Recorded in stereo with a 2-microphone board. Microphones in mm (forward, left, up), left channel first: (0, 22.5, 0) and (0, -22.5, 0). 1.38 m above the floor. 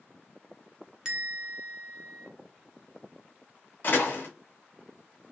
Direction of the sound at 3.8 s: 40° left (ahead or behind).